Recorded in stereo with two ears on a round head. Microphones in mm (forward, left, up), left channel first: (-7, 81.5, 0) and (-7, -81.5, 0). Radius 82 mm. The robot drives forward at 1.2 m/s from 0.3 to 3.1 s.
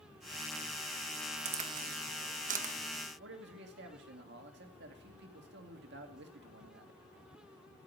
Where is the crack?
35° right (ahead or behind), 1.4 m; by 2.7 s 40° right (ahead or behind), 1.3 m.